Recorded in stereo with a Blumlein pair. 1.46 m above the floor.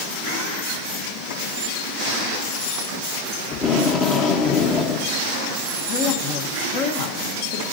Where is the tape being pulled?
25° left, 1.3 m.